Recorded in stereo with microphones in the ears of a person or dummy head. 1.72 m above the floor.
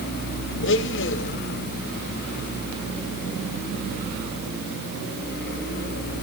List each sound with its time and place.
0.6 s a blender: 70° left (ahead or behind), 2 m